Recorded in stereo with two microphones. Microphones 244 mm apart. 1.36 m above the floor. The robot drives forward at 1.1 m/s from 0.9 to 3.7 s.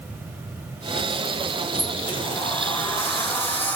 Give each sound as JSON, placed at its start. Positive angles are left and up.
{"t": 1.7, "sound": "a sliding door", "side_deg": 30, "distance_m": 0.9}